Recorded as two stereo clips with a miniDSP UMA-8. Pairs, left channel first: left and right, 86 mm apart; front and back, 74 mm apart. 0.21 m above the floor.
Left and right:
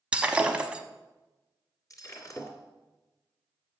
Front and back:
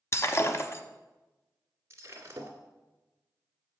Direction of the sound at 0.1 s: 20° right.